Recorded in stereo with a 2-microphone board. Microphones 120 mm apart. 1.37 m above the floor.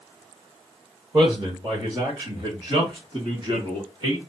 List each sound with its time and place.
1.1 s a man speaking: 30° right (ahead or behind), 1.5 m; by 4.2 s 40° right (ahead or behind), 3 m